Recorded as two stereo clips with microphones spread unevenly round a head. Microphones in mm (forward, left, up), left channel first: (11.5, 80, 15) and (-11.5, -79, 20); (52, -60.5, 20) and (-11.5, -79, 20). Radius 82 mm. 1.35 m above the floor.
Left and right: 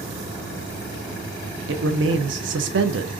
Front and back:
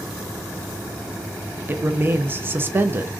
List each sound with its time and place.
1.7 s a man speaking: 110° right, 0.6 m